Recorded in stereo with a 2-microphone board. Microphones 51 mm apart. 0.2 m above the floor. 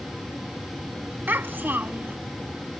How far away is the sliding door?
I don't hear a sliding door.